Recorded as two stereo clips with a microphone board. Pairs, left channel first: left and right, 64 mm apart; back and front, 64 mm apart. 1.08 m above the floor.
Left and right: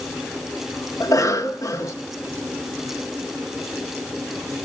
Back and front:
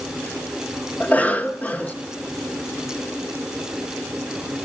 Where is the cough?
115° left, 1.1 m.